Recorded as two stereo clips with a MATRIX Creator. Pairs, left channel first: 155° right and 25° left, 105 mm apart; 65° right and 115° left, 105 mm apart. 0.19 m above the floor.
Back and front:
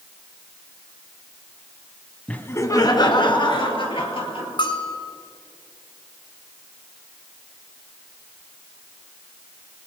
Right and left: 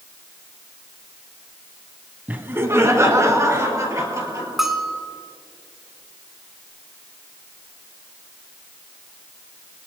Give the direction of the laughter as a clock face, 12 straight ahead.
7 o'clock.